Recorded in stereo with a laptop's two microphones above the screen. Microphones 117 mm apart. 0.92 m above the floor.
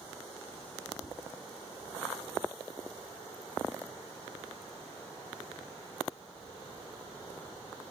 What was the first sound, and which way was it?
Tapping, 35° right (ahead or behind).